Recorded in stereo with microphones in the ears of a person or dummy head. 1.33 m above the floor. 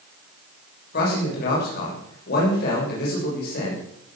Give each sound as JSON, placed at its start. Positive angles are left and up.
{"t": 0.9, "sound": "a man speaking", "side_deg": 60, "distance_m": 7.0}